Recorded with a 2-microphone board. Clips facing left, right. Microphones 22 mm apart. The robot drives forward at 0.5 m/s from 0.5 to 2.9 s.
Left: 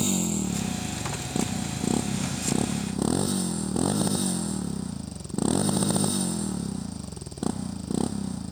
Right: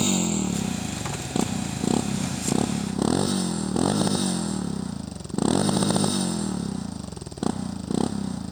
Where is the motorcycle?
20° right (ahead or behind); by 8.5 s 15° right (ahead or behind).